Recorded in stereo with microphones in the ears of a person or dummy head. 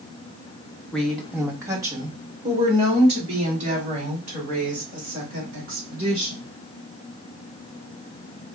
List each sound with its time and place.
0.9 s a woman speaking: 10° left (ahead or behind), 0.8 m; by 6.4 s 45° right (ahead or behind), 3.5 m